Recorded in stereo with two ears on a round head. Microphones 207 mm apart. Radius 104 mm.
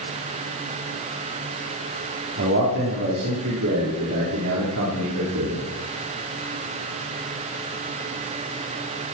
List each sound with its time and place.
2.4 s a man speaking: 55° right (ahead or behind), 4.5 m; by 5.7 s 75° right (ahead or behind), 5 m